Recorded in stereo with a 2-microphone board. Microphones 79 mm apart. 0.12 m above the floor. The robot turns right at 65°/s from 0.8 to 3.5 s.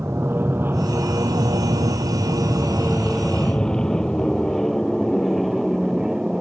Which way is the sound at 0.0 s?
30° right (ahead or behind).